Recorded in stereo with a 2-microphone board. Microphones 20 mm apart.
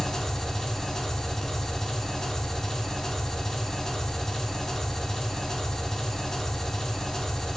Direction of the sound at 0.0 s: 35° left (ahead or behind).